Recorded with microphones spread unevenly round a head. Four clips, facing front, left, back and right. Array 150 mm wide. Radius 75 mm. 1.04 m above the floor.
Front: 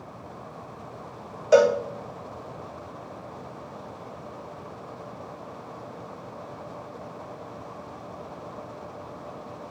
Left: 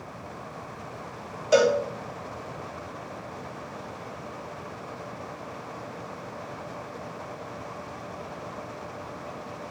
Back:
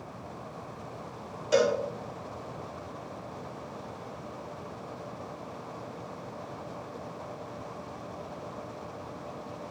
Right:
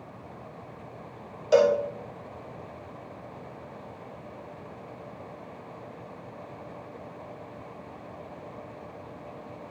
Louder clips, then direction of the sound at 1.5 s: Even, front 7 dB; straight ahead.